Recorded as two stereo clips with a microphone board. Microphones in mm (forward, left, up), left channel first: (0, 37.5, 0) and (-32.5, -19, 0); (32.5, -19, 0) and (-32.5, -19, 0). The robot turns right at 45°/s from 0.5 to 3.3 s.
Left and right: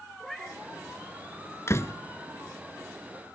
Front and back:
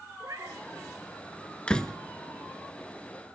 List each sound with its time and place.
0.2 s a cat meowing: 150° left, 4 m; by 0.6 s 155° left, 4 m
1.7 s a door slam: 65° left, 1.1 m; by 1.9 s 80° left, 1.1 m